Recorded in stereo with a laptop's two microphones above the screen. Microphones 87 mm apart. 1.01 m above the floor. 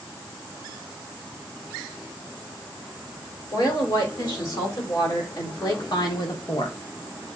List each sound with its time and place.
3.5 s a woman speaking: 45° left (ahead or behind), 4 m; by 6.8 s 60° left (ahead or behind), 1.1 m